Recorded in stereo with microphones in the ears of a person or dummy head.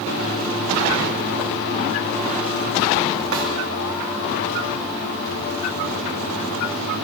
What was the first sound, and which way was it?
A snare drum, 75° right (ahead or behind).